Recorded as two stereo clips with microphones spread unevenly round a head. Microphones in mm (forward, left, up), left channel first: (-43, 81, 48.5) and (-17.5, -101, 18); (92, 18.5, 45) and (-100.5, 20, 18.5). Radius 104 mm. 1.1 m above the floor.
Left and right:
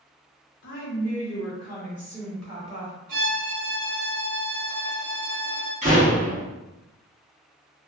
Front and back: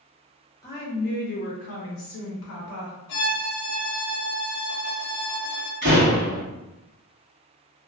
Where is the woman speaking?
75° left, 0.6 m; by 3.0 s 35° right, 0.9 m.